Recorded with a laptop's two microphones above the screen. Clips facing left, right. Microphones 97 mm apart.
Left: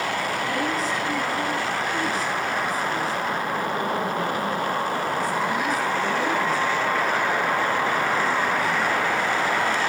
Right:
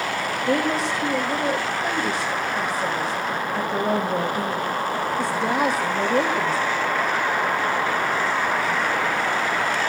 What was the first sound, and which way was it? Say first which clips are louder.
A woman speaking: right 3 dB; 85° right.